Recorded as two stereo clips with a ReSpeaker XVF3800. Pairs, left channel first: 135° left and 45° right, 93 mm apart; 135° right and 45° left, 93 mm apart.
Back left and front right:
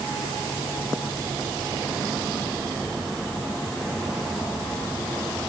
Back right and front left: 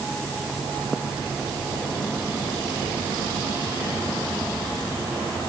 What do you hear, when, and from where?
Only background noise.